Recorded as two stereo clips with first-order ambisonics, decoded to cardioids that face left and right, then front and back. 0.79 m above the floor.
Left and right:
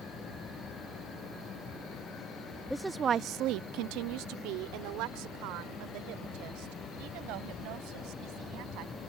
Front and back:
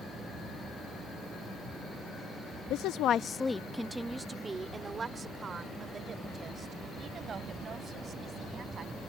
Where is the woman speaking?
5° left; by 8.9 s 115° right.